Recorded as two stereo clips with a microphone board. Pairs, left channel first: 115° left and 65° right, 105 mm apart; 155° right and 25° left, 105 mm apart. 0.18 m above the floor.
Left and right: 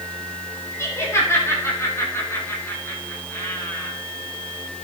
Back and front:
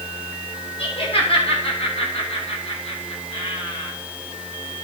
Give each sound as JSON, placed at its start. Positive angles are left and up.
{"t": 0.8, "sound": "laughter", "azimuth_deg": 175, "distance_m": 7.5}